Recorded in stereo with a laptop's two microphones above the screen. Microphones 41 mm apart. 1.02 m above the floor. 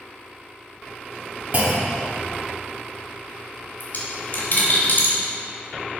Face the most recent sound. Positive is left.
turn(degrees=55)  # may be behind; listen again after turning